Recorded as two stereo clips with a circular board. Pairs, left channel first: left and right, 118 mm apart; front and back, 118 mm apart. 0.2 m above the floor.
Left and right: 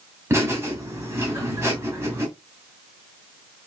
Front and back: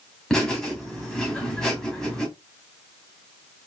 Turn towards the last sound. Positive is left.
turn(degrees=-80)